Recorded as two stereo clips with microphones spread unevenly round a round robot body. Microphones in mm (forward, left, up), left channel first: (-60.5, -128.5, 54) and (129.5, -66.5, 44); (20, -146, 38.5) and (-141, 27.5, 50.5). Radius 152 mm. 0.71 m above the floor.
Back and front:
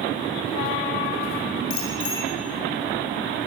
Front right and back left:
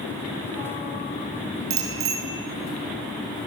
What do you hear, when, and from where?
1.7 s a bicycle bell: 160° left, 8 m